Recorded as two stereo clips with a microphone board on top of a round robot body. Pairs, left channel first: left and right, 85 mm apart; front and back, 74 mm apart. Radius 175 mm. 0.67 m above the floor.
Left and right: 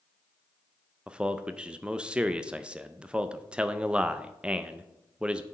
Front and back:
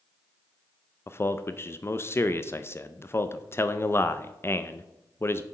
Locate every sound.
1.1 s a man speaking: 20° right, 0.6 m